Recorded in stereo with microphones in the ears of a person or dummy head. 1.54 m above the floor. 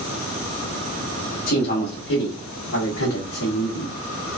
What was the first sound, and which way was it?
A man speaking, 45° left (ahead or behind).